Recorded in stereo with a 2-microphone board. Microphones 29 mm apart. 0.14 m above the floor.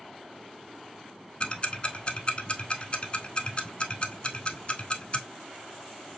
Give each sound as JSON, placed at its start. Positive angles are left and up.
{"t": 1.4, "sound": "ticking", "side_deg": 40, "distance_m": 0.6}